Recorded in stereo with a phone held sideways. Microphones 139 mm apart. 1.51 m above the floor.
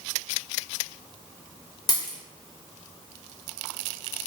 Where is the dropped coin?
30° left (ahead or behind), 0.8 m.